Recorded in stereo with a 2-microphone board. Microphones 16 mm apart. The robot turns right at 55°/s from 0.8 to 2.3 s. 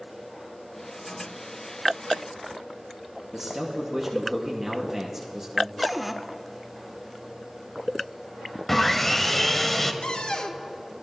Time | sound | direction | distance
3.3 | a man speaking | 20° right (ahead or behind) | 1.2 m
5.8 | a cupboard door | 10° right (ahead or behind) | 0.5 m
8.7 | sawing | 15° left (ahead or behind) | 0.7 m
10.0 | a cupboard door | 65° left (ahead or behind) | 0.6 m